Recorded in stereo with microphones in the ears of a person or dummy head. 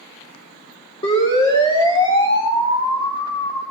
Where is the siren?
30° left (ahead or behind), 8 m; by 3.6 s 20° left (ahead or behind), 7 m.